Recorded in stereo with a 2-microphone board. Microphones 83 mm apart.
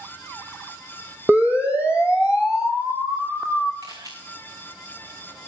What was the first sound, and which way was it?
A siren, 25° right (ahead or behind).